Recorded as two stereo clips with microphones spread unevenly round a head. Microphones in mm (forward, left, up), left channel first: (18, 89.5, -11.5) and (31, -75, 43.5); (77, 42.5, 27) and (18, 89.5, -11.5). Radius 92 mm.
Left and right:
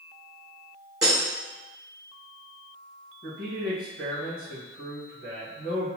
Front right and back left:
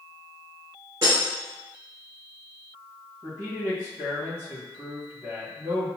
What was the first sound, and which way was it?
Breaking glass, 140° right.